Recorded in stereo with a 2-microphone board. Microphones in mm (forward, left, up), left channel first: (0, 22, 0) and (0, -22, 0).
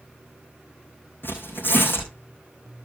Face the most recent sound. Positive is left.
turn(degrees=55)  # may be behind; listen again after turning